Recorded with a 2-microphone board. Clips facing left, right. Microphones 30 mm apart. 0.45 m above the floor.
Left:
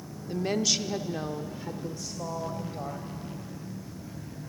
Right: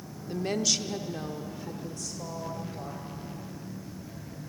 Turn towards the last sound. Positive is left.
turn(degrees=20)  # may be behind; listen again after turning